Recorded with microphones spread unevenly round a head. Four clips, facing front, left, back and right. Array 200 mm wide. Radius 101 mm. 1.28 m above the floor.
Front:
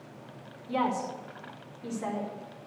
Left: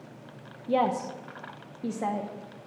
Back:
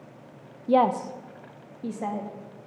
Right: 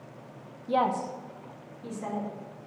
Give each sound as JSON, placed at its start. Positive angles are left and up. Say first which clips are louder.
{"t": 0.7, "sound": "a woman speaking", "louder": "left 1 dB, back 8 dB", "azimuth_deg": 175, "distance_m": 0.8}